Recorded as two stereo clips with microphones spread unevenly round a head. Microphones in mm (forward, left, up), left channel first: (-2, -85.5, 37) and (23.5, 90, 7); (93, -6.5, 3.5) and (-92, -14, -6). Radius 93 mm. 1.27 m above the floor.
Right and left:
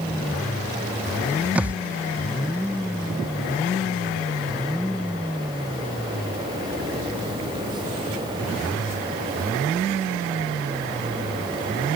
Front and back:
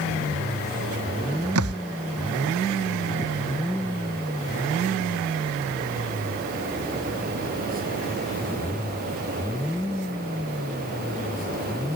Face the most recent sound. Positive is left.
turn(degrees=165)